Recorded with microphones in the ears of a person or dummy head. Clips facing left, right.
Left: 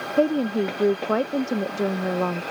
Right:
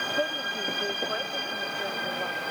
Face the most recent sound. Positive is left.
turn(degrees=80)